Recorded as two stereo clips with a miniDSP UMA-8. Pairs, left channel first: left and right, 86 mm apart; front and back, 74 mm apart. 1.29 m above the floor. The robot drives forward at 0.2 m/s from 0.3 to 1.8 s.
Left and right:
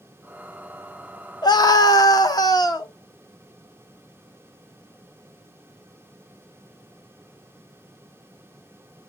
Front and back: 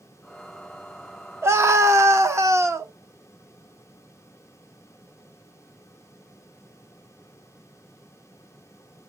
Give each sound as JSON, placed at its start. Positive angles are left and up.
{"t": 1.4, "sound": "a scream", "azimuth_deg": 125, "distance_m": 0.7}